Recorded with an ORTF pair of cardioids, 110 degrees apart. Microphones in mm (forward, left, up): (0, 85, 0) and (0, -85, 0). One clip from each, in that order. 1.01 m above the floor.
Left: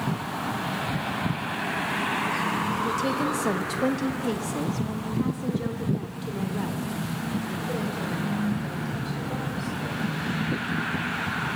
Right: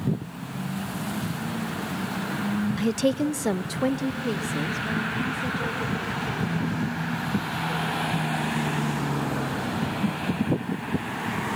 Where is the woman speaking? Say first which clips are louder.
Right 1 dB; 70° right, 0.6 m; by 10.1 s 20° left, 5.5 m.